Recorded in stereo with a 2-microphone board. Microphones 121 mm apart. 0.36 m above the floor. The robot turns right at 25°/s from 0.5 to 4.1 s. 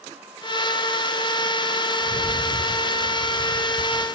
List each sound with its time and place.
2.0 s a rattle: 30° right (ahead or behind), 1.3 m; by 4.1 s 25° right (ahead or behind), 1.3 m